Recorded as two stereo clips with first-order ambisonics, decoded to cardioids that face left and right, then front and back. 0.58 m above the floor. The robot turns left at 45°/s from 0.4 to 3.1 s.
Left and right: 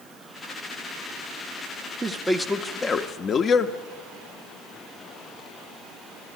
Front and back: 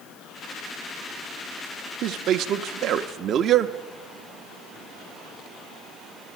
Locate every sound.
2.0 s a man speaking: 170° right, 0.8 m; by 3.8 s 140° left, 0.8 m